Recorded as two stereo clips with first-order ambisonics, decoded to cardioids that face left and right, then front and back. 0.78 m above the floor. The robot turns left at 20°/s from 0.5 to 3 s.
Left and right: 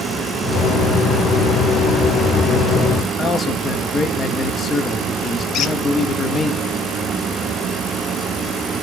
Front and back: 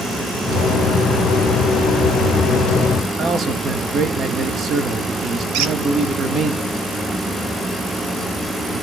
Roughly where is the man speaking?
Behind left.